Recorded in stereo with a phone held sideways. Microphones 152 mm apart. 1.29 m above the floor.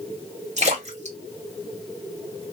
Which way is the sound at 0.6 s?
50° right (ahead or behind).